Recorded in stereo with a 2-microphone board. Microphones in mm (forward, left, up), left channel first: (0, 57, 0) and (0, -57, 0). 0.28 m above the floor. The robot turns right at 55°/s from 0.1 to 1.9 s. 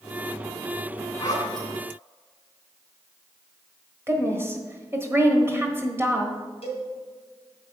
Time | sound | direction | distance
1.2 | a zipper | 25° left (ahead or behind) | 2.5 m
4.1 | a woman speaking | 20° right (ahead or behind) | 1.4 m
6.6 | a cowbell | 60° left (ahead or behind) | 2.5 m